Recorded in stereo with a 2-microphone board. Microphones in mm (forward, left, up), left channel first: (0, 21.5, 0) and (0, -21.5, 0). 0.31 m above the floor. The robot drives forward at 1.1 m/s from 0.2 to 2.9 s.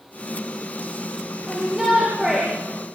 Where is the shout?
10° right (ahead or behind), 9.5 m; by 2.5 s 15° right (ahead or behind), 8 m.